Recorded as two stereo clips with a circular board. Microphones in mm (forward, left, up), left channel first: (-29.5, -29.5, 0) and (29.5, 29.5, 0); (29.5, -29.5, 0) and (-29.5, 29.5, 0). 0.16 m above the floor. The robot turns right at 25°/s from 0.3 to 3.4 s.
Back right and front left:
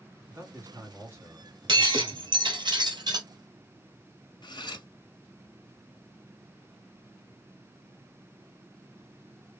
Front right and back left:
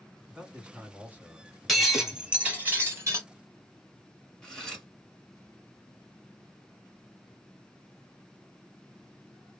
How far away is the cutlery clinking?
About 1.2 m.